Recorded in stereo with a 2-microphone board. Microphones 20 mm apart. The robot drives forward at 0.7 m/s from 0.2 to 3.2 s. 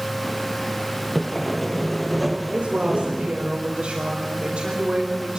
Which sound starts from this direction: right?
A woman speaking, at 2.5 s.